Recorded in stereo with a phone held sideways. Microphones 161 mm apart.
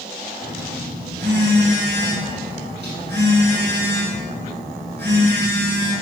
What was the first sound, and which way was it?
A phone buzzing, 80° right.